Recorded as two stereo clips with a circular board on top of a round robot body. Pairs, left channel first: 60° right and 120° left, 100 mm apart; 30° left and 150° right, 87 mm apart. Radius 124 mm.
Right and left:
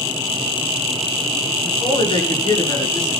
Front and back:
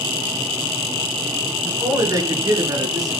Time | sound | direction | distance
1.6 | a man speaking | 100° right | 7 m